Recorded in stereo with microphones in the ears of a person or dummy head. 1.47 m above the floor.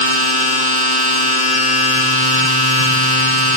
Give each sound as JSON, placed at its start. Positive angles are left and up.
{"t": 0.0, "sound": "a machine running", "side_deg": 25, "distance_m": 1.2}